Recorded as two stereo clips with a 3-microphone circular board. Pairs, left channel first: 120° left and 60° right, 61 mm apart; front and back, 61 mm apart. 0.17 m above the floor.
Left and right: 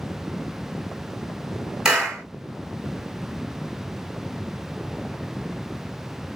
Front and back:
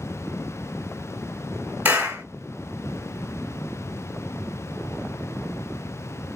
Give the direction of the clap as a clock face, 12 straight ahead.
5 o'clock.